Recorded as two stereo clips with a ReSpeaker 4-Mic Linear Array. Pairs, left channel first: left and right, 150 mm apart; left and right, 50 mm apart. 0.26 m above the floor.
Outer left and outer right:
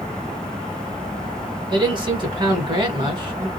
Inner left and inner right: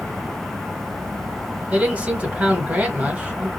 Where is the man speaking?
30° right (ahead or behind), 1.2 m.